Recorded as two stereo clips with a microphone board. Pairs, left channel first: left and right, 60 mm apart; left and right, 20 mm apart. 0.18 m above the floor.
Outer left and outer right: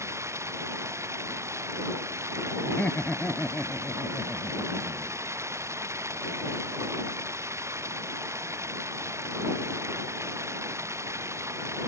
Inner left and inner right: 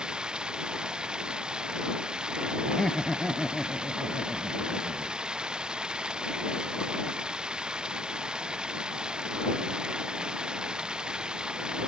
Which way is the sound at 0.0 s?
50° right (ahead or behind).